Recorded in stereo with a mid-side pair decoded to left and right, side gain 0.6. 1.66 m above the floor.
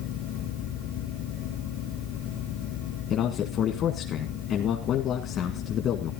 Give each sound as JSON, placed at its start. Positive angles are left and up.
{"t": 0.0, "sound": "a fan", "azimuth_deg": 70, "distance_m": 3.5}
{"t": 3.1, "sound": "a man speaking", "azimuth_deg": 55, "distance_m": 1.8}